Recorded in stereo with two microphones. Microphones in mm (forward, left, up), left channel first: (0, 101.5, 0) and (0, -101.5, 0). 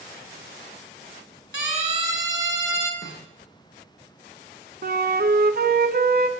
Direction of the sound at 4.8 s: 50° right (ahead or behind).